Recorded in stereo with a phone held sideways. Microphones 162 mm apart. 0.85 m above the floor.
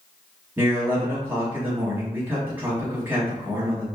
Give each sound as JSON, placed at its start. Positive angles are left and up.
{"t": 0.6, "sound": "a man speaking", "side_deg": -10, "distance_m": 1.3}